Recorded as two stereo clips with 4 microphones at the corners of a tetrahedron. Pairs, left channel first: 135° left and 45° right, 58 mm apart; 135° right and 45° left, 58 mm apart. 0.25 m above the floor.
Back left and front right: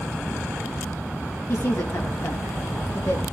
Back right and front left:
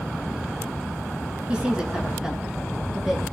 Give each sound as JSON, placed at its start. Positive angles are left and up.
{"t": 1.5, "sound": "a woman speaking", "azimuth_deg": 115, "distance_m": 3.5}